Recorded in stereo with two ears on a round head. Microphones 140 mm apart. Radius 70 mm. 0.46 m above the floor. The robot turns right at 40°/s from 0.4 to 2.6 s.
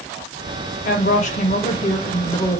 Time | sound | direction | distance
0.8 | a woman speaking | 85° left | 1.6 m